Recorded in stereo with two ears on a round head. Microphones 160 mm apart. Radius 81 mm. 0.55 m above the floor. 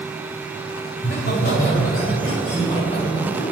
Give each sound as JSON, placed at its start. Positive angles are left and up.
{"t": 0.9, "sound": "laughter", "side_deg": 65, "distance_m": 2.0}